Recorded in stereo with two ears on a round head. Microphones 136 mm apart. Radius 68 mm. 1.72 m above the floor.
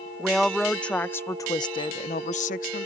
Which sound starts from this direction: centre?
A woman speaking, at 0.2 s.